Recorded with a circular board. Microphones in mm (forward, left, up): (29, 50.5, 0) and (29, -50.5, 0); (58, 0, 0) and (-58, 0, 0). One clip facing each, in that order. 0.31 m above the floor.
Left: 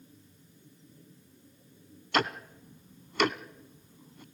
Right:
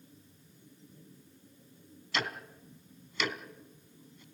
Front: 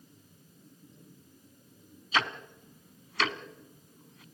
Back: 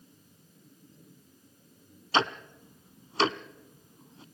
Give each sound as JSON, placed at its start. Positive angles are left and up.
{"t": 2.1, "sound": "ticking", "azimuth_deg": 120, "distance_m": 0.8}